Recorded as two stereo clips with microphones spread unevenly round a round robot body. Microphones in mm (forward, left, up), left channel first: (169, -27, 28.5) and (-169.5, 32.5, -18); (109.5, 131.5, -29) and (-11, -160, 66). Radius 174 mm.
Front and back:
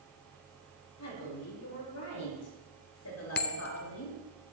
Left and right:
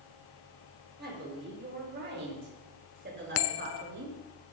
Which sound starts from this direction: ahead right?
A woman speaking, at 1.0 s.